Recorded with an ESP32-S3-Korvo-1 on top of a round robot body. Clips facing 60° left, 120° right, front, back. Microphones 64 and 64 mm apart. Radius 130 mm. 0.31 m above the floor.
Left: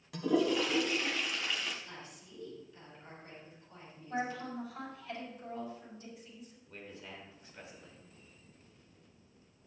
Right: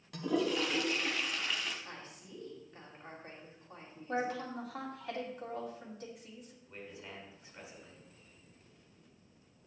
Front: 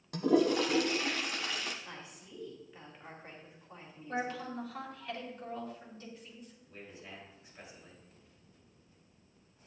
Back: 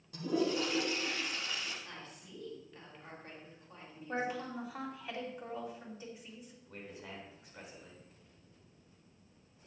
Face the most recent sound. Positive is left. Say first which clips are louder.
# right 1 dB, back 3 dB
turn(degrees=170)